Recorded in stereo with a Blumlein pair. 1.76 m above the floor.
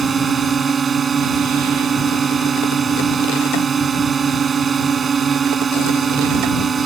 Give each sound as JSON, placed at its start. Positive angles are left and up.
{"t": 0.0, "sound": "a drone", "azimuth_deg": -20}